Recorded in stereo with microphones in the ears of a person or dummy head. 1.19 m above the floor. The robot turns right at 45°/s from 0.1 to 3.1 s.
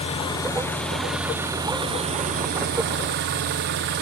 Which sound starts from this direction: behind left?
An engine running, at 0.0 s.